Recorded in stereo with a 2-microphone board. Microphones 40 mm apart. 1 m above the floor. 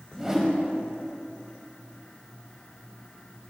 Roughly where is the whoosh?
Centre.